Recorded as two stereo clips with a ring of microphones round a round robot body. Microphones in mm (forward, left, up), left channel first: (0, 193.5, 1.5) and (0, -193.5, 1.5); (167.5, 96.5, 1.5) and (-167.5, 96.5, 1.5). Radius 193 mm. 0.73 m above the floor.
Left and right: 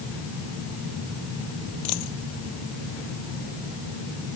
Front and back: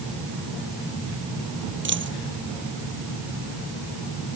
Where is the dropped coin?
125° left.